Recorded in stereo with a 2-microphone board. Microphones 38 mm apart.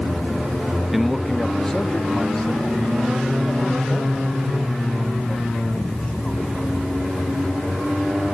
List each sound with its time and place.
0.9 s a man speaking: 10° right (ahead or behind); by 6.7 s 25° left (ahead or behind)